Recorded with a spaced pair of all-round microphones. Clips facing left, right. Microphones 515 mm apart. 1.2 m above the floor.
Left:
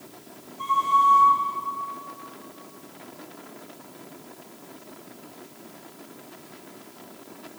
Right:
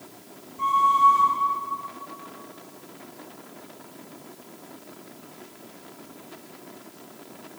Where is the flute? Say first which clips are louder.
Right 2 dB; 80° right, 9 m.